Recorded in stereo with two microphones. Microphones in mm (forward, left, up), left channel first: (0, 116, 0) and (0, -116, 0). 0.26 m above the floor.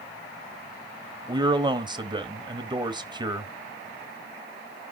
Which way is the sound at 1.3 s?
20° right (ahead or behind).